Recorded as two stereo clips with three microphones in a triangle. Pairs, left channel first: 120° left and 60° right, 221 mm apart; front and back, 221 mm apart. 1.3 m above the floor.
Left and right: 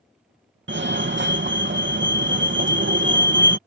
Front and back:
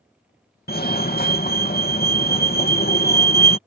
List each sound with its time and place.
0.7 s a fire alarm: 40° right